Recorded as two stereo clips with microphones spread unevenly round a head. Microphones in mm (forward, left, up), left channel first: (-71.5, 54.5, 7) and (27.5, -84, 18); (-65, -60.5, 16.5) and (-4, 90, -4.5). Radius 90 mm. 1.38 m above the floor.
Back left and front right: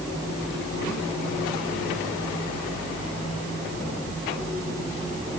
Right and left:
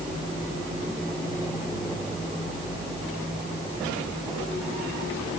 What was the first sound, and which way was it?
Only background noise.